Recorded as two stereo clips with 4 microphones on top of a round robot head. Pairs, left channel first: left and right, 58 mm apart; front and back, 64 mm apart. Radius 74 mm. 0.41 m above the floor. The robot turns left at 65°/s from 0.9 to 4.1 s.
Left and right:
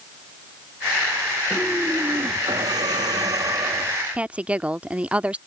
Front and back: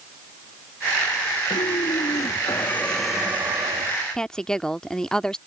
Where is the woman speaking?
60° right.